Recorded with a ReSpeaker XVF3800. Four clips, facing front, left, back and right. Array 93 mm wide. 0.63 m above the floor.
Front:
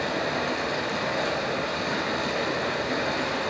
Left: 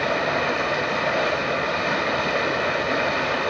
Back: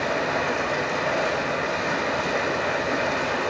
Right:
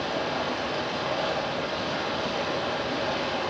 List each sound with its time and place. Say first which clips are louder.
0.0 s running water: left 6 dB, back 3 dB; 115° left, 1.9 m